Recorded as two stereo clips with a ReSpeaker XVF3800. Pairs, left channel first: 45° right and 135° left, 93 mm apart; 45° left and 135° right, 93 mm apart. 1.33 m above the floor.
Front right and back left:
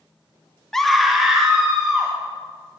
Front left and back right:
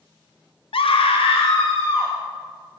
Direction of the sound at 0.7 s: 40° left.